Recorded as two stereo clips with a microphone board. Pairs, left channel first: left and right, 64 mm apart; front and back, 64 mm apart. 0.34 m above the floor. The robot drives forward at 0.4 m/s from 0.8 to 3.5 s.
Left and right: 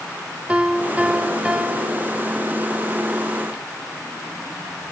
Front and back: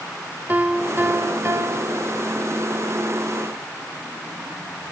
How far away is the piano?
About 0.6 m.